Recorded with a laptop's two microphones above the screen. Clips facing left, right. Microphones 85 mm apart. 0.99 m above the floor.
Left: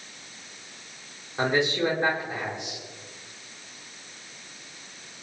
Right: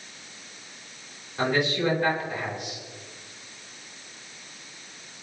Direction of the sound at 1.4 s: 25° left (ahead or behind).